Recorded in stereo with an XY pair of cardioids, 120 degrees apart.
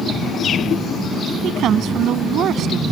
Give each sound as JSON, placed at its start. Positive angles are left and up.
{"t": 1.4, "sound": "a woman speaking", "azimuth_deg": -65}